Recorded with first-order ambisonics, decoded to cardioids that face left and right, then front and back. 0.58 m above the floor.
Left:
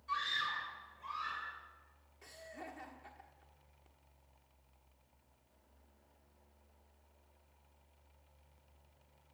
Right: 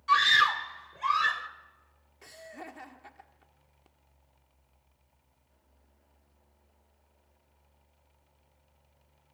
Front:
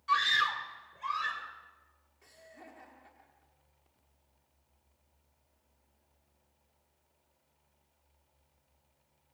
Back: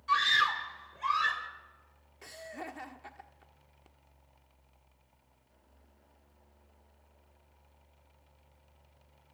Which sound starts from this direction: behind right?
Laughter, at 2.2 s.